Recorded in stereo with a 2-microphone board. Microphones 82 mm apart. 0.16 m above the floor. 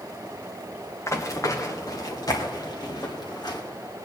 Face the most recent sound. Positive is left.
turn(degrees=60)  # may be behind; listen again after turning